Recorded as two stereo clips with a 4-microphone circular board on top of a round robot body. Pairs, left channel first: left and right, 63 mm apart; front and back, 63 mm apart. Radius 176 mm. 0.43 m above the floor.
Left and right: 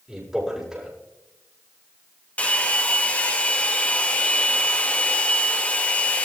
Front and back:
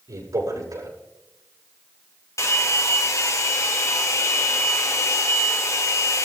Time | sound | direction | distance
0.1 | a man speaking | 175° right | 7.5 m
2.4 | a hair dryer | 25° left | 2 m